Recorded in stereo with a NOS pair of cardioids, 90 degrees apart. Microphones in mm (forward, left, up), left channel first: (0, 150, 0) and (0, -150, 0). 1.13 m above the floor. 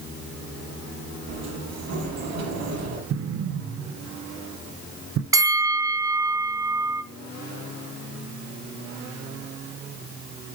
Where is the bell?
10° right, 1.6 m.